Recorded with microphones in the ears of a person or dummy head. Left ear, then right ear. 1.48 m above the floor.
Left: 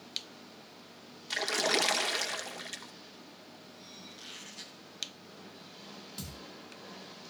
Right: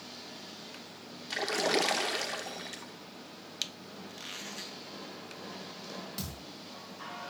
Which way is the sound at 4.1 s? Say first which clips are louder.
Right 6 dB; 20° right (ahead or behind).